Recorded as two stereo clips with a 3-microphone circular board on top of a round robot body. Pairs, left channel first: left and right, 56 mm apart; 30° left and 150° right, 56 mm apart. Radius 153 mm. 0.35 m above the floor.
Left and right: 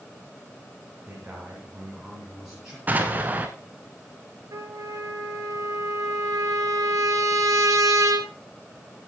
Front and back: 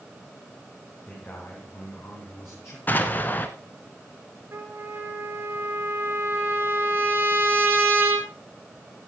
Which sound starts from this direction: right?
A trumpet, at 4.5 s.